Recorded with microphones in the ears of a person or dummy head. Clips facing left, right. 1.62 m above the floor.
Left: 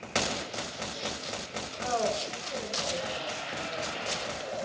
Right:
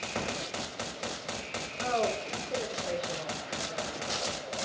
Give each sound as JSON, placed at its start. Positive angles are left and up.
{"t": 1.8, "sound": "a woman speaking", "side_deg": -40, "distance_m": 4.0}